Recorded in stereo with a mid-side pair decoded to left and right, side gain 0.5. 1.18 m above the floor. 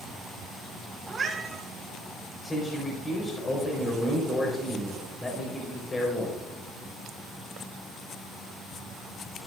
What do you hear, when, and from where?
1.1 s a cat meowing: 25° right, 3.5 m
2.4 s a man speaking: 30° left, 4.5 m